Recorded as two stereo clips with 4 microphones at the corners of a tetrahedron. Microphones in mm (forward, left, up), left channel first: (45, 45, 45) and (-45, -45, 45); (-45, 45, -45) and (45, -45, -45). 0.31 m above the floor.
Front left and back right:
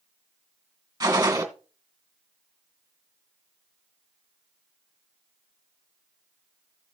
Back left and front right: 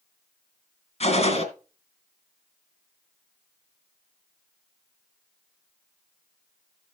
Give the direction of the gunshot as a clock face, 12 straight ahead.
6 o'clock.